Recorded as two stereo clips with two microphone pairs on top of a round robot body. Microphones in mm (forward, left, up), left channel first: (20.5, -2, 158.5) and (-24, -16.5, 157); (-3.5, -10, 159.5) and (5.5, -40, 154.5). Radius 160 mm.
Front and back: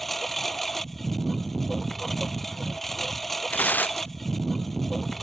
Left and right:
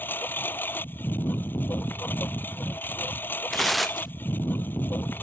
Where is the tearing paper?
5° left.